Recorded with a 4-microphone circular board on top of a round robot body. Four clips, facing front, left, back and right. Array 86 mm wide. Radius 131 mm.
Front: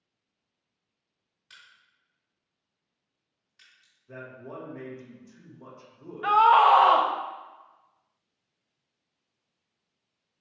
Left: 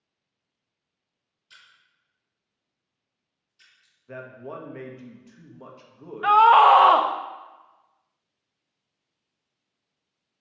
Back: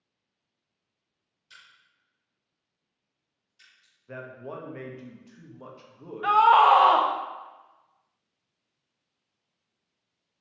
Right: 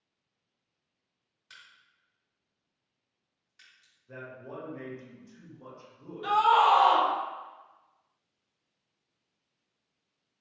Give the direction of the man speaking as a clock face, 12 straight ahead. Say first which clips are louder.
Left 5 dB, back 3 dB; 8 o'clock.